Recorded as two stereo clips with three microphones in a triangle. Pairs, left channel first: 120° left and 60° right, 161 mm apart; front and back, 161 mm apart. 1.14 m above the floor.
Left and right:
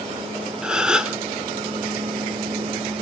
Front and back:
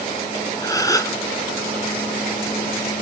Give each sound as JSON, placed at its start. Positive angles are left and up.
{"t": 0.6, "sound": "a gasp", "azimuth_deg": 20, "distance_m": 0.8}